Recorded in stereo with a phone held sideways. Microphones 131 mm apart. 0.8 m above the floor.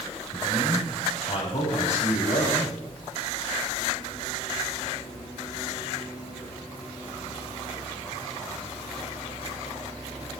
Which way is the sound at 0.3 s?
55° left (ahead or behind).